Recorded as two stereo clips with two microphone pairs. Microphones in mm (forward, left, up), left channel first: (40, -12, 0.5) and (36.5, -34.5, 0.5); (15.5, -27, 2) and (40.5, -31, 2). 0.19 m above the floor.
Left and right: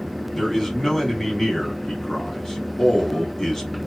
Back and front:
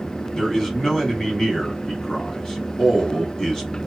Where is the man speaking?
140° left, 1.1 m.